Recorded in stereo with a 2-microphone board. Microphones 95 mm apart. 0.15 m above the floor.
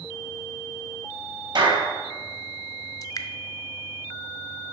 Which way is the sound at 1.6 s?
50° right (ahead or behind).